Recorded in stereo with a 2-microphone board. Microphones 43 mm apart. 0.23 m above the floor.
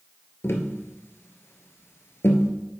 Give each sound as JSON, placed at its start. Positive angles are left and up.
{"t": 0.4, "sound": "tapping", "side_deg": 75, "distance_m": 1.1}